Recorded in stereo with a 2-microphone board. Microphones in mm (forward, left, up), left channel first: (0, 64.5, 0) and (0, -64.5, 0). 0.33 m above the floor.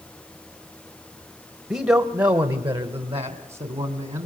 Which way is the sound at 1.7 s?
15° right (ahead or behind).